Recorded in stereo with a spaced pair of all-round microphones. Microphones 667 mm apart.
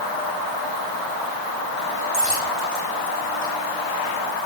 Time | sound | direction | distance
2.1 | a dropped coin | 75° left (ahead or behind) | 9 m